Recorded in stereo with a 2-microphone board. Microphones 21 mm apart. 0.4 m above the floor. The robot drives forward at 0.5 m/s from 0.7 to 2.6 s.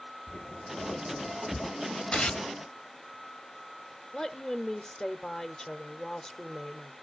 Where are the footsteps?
55° left (ahead or behind), 1.1 m; by 1.7 s 35° left (ahead or behind), 0.9 m.